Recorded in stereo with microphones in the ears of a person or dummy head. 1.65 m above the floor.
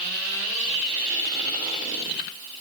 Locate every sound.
Only background noise.